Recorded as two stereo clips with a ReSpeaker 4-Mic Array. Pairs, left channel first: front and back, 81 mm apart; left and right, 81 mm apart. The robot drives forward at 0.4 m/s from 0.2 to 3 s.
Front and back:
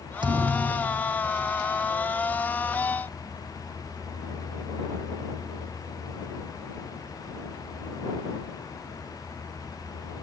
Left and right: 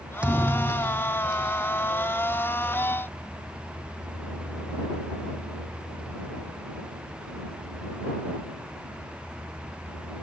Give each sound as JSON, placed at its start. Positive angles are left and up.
{"t": 0.2, "sound": "a thud", "azimuth_deg": -165}